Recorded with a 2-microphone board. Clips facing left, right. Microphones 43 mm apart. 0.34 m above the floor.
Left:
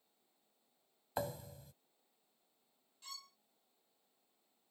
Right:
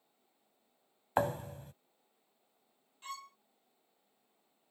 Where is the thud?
50° right (ahead or behind).